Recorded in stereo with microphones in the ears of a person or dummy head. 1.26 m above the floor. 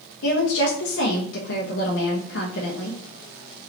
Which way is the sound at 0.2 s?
65° left (ahead or behind).